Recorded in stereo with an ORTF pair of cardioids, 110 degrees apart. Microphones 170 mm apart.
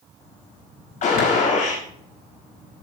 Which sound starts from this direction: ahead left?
A gunshot, at 1.0 s.